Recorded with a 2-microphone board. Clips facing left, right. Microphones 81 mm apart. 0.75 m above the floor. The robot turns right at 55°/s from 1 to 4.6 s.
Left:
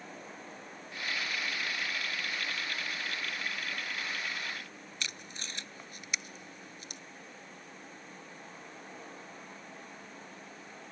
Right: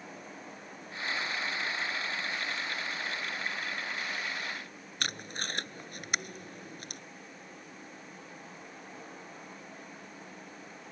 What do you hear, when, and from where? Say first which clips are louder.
5.0 s tape being pulled: right 7 dB; 55° right (ahead or behind)